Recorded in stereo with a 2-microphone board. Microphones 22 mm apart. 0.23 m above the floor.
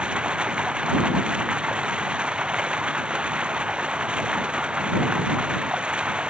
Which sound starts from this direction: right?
Running water, at 0.0 s.